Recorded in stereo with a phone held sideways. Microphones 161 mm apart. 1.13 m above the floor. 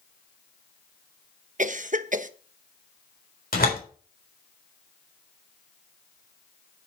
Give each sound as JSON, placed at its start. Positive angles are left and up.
{"t": 1.6, "sound": "a cough", "side_deg": -55, "distance_m": 0.9}
{"t": 3.5, "sound": "a door slam", "side_deg": 70, "distance_m": 3.5}